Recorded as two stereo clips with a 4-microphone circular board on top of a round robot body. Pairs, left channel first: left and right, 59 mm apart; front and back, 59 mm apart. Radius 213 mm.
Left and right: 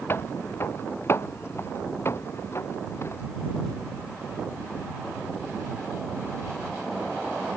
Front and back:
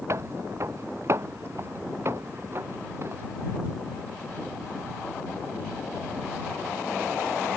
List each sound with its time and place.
0.1 s footsteps: 140° left; by 3.3 s 135° left